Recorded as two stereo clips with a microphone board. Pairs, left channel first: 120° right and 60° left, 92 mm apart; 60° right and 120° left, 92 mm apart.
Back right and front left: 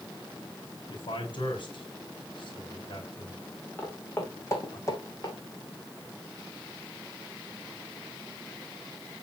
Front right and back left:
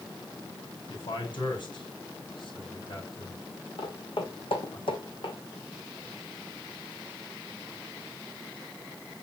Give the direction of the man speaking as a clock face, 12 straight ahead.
3 o'clock.